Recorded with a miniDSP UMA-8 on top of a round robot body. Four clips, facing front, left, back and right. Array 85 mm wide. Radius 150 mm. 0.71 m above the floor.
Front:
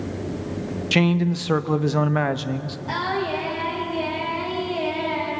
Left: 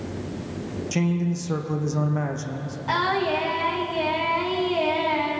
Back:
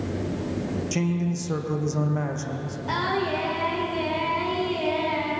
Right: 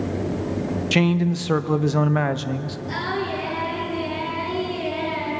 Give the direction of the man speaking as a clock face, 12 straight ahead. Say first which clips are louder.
Right 4 dB, front 9 dB; 1 o'clock.